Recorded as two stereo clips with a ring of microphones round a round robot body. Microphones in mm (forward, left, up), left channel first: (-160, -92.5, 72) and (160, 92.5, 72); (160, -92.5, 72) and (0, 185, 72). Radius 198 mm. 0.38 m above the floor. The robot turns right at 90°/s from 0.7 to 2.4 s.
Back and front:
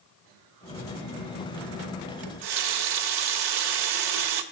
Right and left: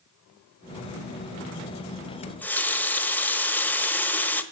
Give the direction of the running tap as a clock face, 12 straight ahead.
12 o'clock.